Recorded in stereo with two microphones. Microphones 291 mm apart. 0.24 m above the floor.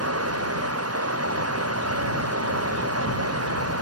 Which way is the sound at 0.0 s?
55° right (ahead or behind).